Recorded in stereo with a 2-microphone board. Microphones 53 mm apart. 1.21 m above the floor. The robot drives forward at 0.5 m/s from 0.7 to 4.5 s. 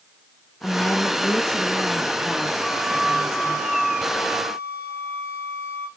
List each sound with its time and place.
0.6 s a woman speaking: 25° left (ahead or behind), 0.6 m; by 3.6 s 5° left (ahead or behind), 1.9 m
2.6 s a flute: 15° right (ahead or behind), 2 m; by 5.9 s 10° right (ahead or behind), 3 m